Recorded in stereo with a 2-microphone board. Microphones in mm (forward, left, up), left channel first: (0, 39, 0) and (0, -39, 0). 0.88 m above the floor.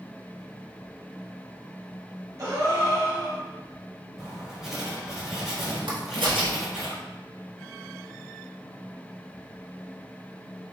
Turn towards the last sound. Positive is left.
turn(degrees=-80)